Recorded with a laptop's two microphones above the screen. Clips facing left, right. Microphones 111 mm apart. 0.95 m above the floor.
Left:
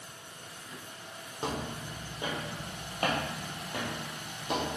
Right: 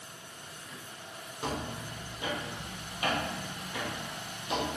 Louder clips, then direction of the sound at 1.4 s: Left 1 dB; 25° left (ahead or behind).